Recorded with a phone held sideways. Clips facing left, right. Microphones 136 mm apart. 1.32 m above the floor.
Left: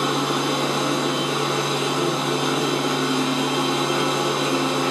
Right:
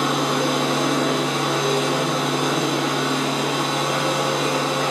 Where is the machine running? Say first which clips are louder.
Right 1 dB; 65° right (ahead or behind), 1.2 m.